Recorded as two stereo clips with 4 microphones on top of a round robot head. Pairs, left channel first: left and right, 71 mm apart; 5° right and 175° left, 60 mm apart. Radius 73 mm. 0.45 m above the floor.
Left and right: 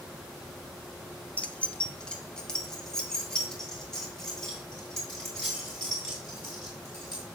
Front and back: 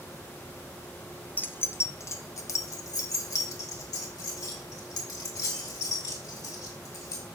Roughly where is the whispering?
I don't hear whispering.